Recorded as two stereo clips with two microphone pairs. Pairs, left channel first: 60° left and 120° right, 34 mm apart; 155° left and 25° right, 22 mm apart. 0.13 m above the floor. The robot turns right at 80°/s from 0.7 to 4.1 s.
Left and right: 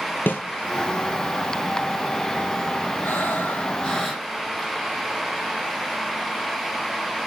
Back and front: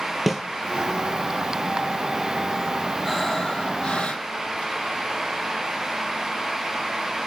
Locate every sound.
0.3 s a snare drum: 65° left, 1.0 m
3.0 s breathing: 65° left, 5 m; by 4.7 s 150° left, 5 m